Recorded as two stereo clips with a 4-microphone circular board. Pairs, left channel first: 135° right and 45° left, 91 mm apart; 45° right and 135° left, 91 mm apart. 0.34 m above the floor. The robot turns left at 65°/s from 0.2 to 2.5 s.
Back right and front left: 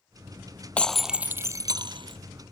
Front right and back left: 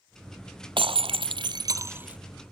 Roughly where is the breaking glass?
Behind left.